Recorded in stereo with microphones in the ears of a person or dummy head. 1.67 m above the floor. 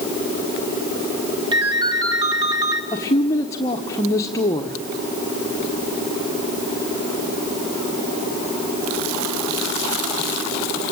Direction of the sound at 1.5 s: 25° right (ahead or behind).